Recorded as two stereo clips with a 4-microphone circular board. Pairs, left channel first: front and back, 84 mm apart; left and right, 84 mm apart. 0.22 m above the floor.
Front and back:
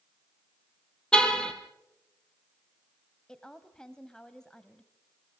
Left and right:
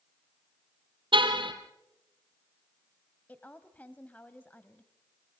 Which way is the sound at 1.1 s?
80° right.